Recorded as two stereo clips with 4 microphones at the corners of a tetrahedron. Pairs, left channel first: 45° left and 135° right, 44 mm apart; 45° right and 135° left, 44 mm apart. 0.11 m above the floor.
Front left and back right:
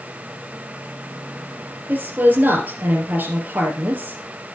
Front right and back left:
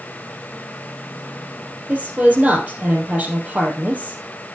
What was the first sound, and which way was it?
A woman speaking, 175° right.